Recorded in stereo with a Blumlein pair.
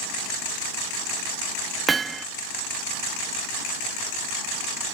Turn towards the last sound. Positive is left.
turn(degrees=-15)